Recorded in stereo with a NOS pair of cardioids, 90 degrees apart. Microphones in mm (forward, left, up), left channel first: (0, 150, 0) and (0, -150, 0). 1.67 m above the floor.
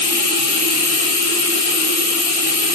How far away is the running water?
About 1.7 m.